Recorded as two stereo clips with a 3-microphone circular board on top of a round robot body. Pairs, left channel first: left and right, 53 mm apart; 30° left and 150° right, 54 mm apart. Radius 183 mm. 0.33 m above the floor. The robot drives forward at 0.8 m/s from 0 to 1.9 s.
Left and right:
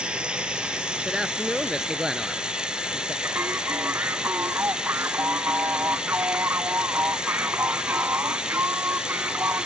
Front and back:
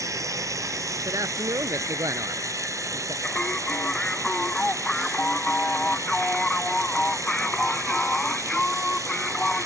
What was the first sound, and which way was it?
Running water, 165° right.